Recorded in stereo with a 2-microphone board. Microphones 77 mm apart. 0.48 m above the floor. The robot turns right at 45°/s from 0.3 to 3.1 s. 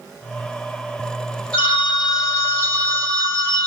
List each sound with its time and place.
1.5 s a phone ringing: 165° left, 1.9 m; by 3.7 s 125° right, 1.9 m